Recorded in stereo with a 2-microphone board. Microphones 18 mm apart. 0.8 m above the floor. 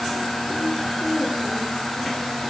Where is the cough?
No cough in this recording.